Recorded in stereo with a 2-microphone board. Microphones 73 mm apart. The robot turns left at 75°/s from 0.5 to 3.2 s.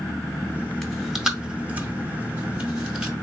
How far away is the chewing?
About 0.7 m.